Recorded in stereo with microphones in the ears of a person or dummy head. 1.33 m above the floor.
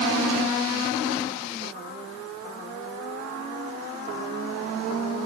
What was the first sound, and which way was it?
Only background noise.